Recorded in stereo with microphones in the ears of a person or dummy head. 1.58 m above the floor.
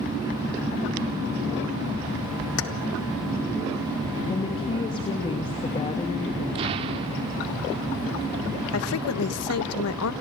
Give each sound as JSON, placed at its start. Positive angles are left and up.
{"t": 2.6, "sound": "keys jangling", "side_deg": 75, "distance_m": 1.9}
{"t": 4.3, "sound": "a woman speaking", "side_deg": 25, "distance_m": 2.5}
{"t": 6.5, "sound": "an explosion", "side_deg": -30, "distance_m": 1.3}
{"t": 8.7, "sound": "a woman speaking", "side_deg": 80, "distance_m": 1.7}